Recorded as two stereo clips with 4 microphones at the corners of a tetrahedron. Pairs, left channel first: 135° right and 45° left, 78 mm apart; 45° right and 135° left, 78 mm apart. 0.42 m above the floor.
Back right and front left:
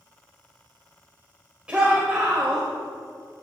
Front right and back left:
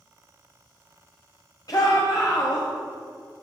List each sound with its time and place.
1.7 s a shout: 30° right, 1.7 m